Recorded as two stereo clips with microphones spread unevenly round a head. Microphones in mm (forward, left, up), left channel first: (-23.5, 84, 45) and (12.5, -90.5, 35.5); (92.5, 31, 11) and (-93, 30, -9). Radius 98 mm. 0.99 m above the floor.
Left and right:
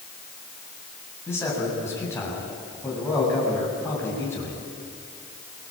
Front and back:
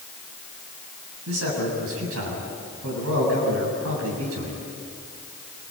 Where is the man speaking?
Straight behind, 7.5 m.